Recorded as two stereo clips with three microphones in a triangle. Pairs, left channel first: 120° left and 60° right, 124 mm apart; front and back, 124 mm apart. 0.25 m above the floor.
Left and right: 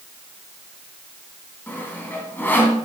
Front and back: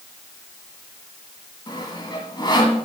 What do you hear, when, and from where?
1.7 s sawing: 50° left, 2.5 m